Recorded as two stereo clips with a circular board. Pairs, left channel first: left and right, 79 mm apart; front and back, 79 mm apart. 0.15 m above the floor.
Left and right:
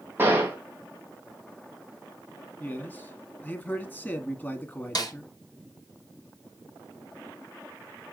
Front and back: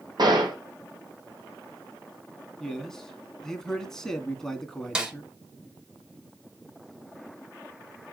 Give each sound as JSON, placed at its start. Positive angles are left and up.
{"t": 0.2, "sound": "a gunshot", "azimuth_deg": -155, "distance_m": 3.0}
{"t": 2.6, "sound": "a man speaking", "azimuth_deg": 75, "distance_m": 1.8}
{"t": 5.0, "sound": "a snare drum", "azimuth_deg": 105, "distance_m": 2.5}